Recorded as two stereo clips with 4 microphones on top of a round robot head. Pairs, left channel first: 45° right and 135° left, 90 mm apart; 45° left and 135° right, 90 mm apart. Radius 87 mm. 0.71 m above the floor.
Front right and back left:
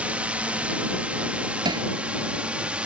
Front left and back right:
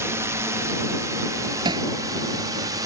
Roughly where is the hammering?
Behind.